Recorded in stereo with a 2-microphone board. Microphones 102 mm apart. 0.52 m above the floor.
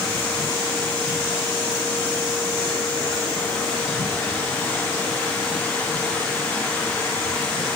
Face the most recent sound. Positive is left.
No sound to turn to.